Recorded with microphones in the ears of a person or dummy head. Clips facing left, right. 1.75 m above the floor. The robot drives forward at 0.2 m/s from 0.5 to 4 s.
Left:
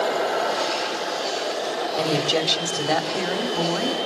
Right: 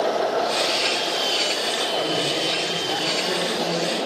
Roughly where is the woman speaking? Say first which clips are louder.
Left 4 dB; left.